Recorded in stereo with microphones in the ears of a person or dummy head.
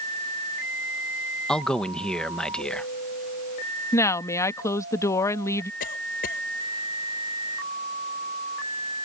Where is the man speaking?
5° left (ahead or behind).